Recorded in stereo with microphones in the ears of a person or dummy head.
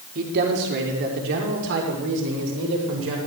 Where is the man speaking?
55° right (ahead or behind), 4 m; by 3.2 s 75° right (ahead or behind), 7.5 m.